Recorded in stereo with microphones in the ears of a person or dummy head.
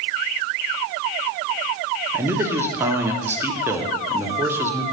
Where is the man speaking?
10° right (ahead or behind), 1.0 m.